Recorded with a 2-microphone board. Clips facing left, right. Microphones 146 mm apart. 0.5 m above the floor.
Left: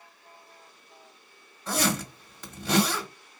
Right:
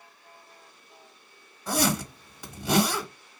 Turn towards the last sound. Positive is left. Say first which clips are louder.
# right 2 dB
turn(degrees=-10)  # may be behind; listen again after turning